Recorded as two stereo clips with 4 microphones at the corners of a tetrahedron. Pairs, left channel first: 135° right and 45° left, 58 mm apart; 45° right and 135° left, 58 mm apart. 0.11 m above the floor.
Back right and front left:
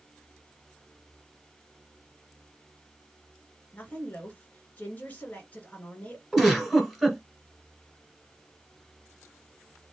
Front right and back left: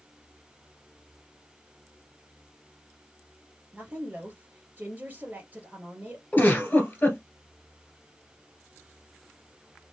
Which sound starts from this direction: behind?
A woman speaking, at 3.7 s.